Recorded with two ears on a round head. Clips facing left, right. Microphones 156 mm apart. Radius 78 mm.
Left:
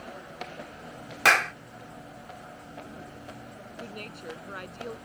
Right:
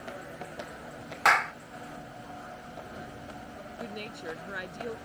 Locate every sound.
1.2 s a clap: 35° left (ahead or behind)
3.8 s a woman speaking: 10° right (ahead or behind)